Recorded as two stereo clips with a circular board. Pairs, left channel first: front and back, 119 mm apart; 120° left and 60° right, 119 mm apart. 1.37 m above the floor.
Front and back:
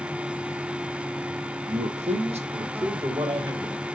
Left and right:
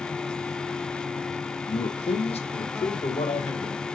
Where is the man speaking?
170° left, 1.2 m; by 3.8 s 130° left, 2.5 m.